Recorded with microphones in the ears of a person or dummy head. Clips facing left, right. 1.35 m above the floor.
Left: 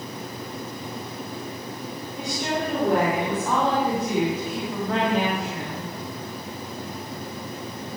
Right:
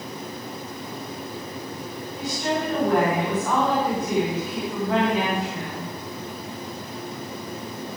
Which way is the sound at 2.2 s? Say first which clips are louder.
Right 1 dB; 15° left (ahead or behind).